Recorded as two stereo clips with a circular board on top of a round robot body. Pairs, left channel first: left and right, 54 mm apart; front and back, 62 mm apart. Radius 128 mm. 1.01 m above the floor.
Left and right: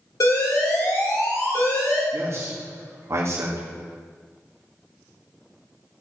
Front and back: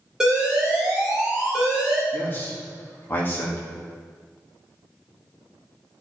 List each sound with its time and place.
0.2 s an alarm: 100° left, 4 m
2.1 s a man speaking: 55° right, 2 m